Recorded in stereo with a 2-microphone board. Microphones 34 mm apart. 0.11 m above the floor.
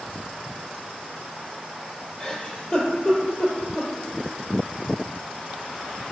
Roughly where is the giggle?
Left.